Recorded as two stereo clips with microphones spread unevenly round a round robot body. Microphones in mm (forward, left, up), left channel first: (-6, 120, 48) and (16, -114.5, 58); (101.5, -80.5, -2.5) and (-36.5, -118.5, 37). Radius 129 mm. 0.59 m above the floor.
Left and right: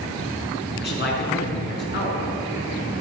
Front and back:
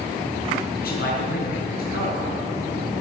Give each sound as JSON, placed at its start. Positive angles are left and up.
{"t": 0.8, "sound": "a man speaking", "azimuth_deg": 45, "distance_m": 6.5}